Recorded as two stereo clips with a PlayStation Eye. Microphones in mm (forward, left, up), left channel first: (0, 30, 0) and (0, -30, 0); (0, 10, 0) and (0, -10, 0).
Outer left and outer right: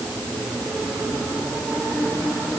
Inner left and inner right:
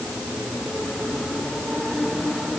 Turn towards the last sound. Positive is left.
No sound to turn to.